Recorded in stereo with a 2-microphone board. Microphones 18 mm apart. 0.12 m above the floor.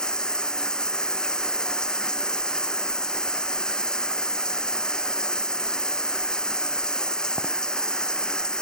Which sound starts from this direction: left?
Running water, at 0.0 s.